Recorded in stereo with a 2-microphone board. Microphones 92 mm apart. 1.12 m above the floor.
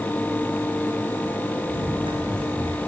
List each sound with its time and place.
1.7 s running footsteps: 75° right (ahead or behind), 4 m; by 2.8 s 65° right (ahead or behind), 5 m